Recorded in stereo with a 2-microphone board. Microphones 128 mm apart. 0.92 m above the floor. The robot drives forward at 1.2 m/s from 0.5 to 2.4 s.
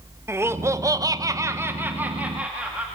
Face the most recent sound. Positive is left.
turn(degrees=-10)  # may be behind; listen again after turning